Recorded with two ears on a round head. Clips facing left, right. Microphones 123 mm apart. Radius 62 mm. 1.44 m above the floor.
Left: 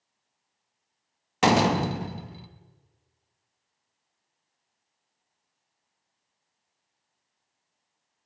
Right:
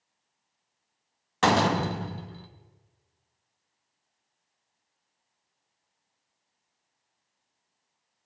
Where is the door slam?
15° left (ahead or behind), 1.0 m.